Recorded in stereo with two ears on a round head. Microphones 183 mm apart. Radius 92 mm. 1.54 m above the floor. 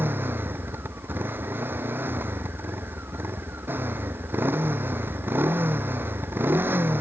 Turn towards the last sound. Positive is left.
turn(degrees=-10)  # may be behind; listen again after turning